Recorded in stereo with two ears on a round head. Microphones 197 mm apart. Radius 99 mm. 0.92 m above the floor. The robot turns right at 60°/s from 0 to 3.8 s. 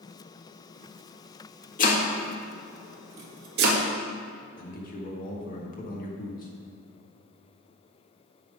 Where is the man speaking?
40° left (ahead or behind), 1.5 m.